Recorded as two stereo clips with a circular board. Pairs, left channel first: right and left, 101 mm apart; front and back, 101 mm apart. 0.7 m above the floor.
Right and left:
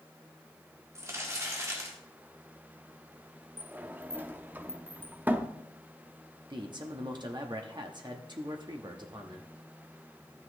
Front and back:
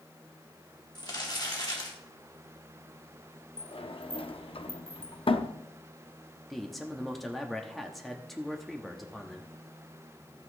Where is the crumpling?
35° left, 2 m.